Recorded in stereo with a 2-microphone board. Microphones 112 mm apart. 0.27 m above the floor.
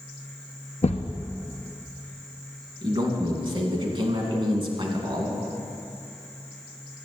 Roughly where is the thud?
Left.